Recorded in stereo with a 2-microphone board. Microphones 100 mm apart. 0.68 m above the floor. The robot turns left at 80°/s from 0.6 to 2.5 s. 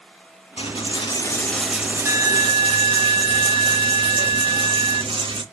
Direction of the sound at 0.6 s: 85° left.